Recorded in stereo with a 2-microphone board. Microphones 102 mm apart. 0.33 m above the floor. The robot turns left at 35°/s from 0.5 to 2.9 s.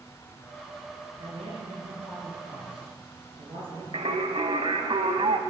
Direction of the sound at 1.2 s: 60° right.